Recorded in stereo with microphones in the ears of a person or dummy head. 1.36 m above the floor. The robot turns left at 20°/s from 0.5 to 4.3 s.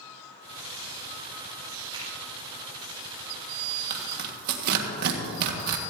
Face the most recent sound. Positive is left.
turn(degrees=-55)  # may be behind; listen again after turning